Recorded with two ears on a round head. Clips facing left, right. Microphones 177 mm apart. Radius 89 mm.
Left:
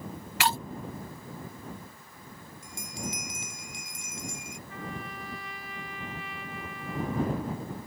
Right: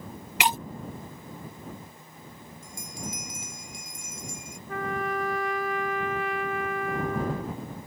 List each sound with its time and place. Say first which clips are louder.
0.4 s breaking glass: right 1 dB; 15° right (ahead or behind)
2.6 s a bell: left 1 dB; 60° left (ahead or behind)
4.7 s a trumpet: right 11 dB; 40° right (ahead or behind)